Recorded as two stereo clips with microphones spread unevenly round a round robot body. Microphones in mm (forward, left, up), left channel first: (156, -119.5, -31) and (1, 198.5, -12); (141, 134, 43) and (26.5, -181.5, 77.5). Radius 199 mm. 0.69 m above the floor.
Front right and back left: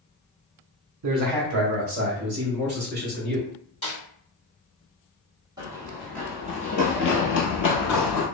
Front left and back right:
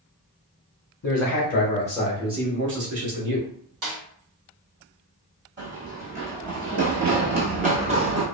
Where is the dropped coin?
I don't hear a dropped coin.